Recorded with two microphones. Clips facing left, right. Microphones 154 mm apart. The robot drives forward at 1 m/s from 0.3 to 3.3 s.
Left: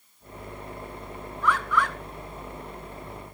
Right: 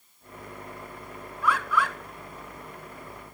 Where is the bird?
5° right (ahead or behind), 3.5 m.